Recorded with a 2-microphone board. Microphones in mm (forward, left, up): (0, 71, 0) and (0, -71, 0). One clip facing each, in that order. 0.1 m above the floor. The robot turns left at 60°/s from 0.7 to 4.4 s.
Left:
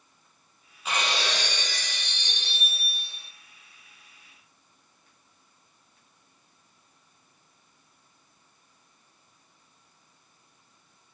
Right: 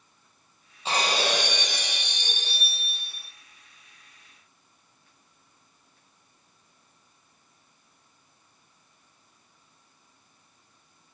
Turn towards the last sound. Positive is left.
turn(degrees=115)